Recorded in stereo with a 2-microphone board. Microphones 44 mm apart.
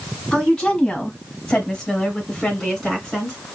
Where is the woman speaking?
15° left (ahead or behind), 1.6 m; by 3.4 s 5° left (ahead or behind), 2.5 m.